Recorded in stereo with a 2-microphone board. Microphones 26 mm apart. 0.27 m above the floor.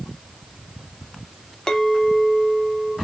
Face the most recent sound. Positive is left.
turn(degrees=25)  # may be behind; listen again after turning